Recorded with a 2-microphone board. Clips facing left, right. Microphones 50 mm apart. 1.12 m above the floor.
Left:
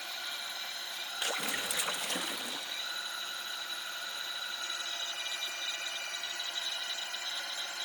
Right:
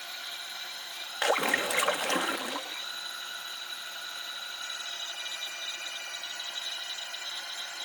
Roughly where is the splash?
Right.